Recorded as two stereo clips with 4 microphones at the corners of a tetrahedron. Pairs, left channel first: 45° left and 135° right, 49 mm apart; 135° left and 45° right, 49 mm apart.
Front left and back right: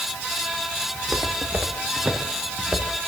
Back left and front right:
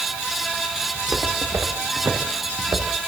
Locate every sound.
0.9 s footsteps: 65° right, 7 m